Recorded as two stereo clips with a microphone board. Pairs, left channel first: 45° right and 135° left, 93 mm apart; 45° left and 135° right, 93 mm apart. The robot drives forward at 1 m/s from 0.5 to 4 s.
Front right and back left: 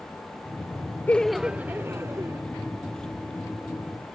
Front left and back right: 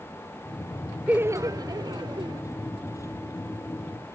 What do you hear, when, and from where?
1.1 s laughter: 80° right; by 2.4 s 170° right